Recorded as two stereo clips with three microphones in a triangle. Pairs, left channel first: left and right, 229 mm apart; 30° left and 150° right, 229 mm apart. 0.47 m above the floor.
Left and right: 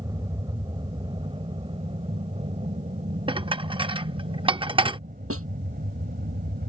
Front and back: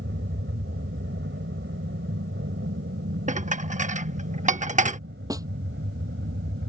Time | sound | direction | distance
0.0 | an aircraft | 160° right | ?
3.3 | dishes clattering | 140° right | ?
5.3 | a snare drum | 75° right | ?